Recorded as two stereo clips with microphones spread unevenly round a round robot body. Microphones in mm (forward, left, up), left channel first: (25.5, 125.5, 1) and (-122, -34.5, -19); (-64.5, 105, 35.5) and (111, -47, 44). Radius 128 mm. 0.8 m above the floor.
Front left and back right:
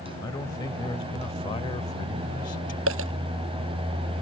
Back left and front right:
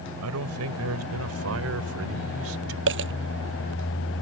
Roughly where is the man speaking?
Ahead right.